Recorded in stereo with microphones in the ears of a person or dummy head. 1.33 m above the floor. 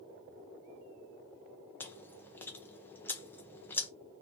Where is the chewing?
10° left (ahead or behind), 0.5 m.